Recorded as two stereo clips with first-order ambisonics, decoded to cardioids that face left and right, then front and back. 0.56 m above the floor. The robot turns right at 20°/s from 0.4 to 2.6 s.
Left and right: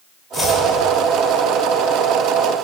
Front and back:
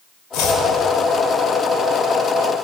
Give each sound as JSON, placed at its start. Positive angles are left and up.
{"t": 0.3, "sound": "chopping", "azimuth_deg": 10, "distance_m": 1.4}